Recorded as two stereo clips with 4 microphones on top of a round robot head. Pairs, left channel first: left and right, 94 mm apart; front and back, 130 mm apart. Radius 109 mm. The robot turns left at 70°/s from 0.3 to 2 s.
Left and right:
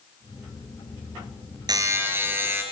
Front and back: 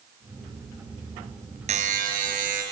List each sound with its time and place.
1.7 s a buzzer: 135° right, 4.5 m; by 2.6 s 155° right, 4.5 m